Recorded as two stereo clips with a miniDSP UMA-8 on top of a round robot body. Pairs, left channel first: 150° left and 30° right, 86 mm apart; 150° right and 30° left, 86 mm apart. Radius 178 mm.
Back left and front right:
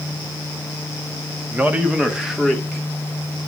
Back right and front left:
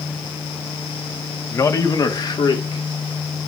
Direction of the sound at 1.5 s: 95° right.